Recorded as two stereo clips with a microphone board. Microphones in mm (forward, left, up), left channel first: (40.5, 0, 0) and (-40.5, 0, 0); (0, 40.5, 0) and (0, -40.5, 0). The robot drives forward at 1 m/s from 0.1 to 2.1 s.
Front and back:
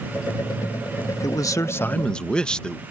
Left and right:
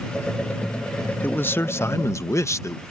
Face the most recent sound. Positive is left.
turn(degrees=75)